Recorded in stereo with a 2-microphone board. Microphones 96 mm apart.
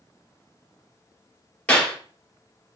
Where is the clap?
15° left (ahead or behind), 3.5 m.